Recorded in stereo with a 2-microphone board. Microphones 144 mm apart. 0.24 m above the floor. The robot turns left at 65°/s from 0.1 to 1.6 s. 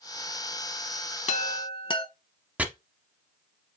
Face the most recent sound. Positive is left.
turn(degrees=-10)  # may be behind; listen again after turning